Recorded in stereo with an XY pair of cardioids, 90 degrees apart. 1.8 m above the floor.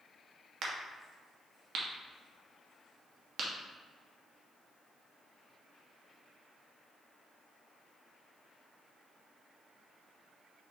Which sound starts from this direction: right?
A crack, at 0.6 s.